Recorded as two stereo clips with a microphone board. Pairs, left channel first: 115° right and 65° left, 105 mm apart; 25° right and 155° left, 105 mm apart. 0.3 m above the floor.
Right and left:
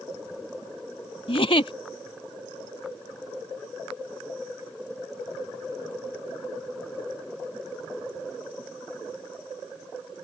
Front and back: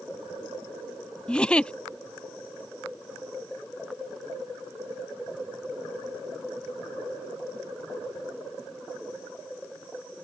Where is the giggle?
100° right.